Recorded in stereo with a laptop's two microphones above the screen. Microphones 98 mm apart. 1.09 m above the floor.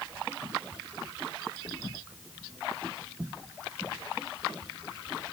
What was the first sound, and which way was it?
Only background noise.